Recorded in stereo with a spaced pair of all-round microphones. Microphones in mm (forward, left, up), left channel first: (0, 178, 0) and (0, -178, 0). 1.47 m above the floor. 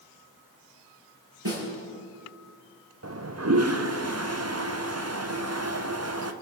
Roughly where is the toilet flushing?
Right.